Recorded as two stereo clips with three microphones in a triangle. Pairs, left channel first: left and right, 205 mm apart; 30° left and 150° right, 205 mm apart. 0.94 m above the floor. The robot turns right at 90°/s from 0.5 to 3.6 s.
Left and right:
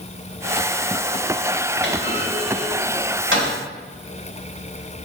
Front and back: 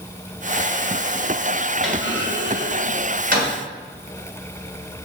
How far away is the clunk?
About 3.5 m.